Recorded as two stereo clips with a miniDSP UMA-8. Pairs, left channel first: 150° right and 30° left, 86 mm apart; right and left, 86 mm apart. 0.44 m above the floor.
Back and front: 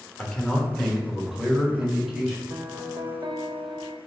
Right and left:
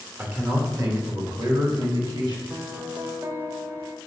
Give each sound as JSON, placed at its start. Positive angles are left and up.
{"t": 0.2, "sound": "a man speaking", "azimuth_deg": 140, "distance_m": 1.2}
{"t": 2.5, "sound": "a piano", "azimuth_deg": 40, "distance_m": 0.8}